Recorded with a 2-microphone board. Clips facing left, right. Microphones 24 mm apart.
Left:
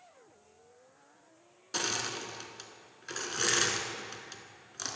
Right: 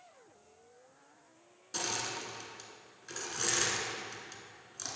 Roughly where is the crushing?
Left.